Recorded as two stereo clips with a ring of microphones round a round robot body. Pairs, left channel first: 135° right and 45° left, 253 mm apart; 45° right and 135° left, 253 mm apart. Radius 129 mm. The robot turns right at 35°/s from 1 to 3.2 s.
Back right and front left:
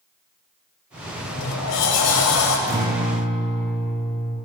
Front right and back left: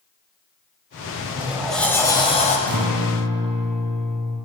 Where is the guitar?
115° left, 4.5 m; by 4.4 s 135° left, 4.5 m.